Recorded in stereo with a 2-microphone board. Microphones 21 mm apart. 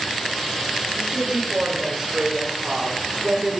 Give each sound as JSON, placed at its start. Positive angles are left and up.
{"t": 0.9, "sound": "a woman speaking", "side_deg": -60, "distance_m": 2.5}